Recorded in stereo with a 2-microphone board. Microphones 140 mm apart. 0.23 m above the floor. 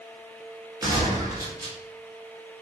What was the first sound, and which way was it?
A gunshot, 25° right (ahead or behind).